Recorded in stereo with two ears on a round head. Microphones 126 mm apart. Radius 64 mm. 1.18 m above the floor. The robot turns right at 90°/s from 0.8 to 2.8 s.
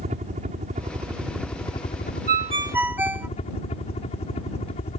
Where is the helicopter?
50° right; by 5.0 s 130° left.